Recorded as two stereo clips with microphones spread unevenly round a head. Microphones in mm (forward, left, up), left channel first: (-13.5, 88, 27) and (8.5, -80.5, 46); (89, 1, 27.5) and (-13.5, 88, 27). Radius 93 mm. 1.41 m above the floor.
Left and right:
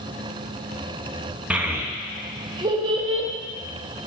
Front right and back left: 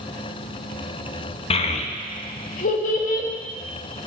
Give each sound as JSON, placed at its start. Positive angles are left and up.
{"t": 1.5, "sound": "a child speaking", "azimuth_deg": -5, "distance_m": 0.9}